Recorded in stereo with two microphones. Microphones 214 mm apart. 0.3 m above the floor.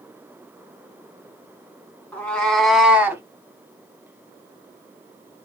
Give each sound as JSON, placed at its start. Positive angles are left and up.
{"t": 2.1, "sound": "a cat meowing", "side_deg": 10, "distance_m": 1.3}